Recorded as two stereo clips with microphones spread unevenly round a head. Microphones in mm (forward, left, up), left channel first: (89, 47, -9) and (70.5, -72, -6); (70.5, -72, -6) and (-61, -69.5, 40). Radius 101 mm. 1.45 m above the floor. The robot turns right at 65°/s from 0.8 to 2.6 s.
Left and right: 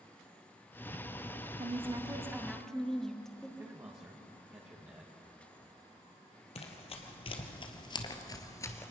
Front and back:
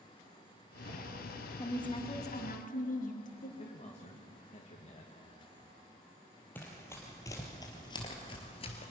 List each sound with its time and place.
1.6 s a woman speaking: 70° right, 2.5 m; by 3.5 s 5° right, 2.5 m
3.6 s a man speaking: 35° right, 2.5 m
6.5 s running footsteps: 90° left, 2.5 m; by 8.9 s 40° left, 1.5 m